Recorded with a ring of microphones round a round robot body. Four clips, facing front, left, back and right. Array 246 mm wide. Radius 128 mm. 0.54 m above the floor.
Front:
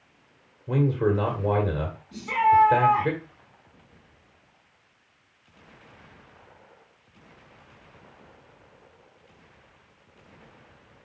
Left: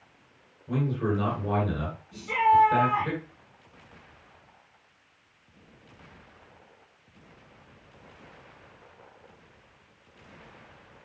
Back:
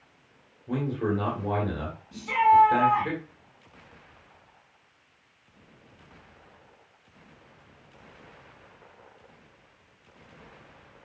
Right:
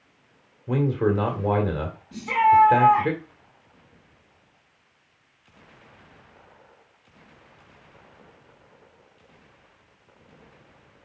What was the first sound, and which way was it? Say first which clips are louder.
A man speaking: right 6 dB, front 5 dB; 70° right.